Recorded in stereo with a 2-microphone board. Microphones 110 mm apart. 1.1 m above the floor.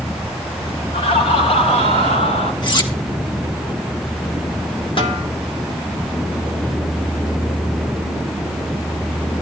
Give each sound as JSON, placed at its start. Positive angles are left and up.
{"t": 0.9, "sound": "laughter", "side_deg": 65, "distance_m": 3.0}
{"t": 2.6, "sound": "cutlery clinking", "side_deg": 45, "distance_m": 1.4}
{"t": 5.0, "sound": "a snare drum", "side_deg": 50, "distance_m": 1.3}